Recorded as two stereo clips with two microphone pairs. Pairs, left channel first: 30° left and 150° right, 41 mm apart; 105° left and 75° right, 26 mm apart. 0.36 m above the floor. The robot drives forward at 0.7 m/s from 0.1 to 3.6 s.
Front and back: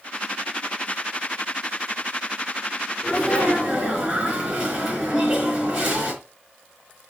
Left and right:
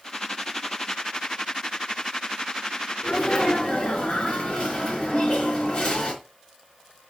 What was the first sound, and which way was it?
A sneeze, 165° left.